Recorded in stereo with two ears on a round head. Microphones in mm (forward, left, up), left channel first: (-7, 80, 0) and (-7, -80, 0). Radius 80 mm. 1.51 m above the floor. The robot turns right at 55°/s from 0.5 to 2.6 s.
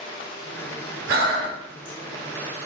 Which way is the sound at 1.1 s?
80° right.